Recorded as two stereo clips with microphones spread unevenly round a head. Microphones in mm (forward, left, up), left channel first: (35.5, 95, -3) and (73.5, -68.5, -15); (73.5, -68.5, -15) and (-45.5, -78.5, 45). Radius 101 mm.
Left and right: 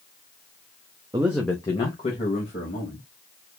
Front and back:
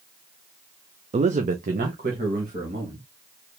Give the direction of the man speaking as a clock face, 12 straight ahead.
5 o'clock.